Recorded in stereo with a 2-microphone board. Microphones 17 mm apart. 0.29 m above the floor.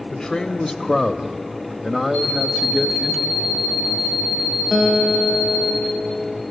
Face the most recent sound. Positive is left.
turn(degrees=-10)  # may be behind; listen again after turning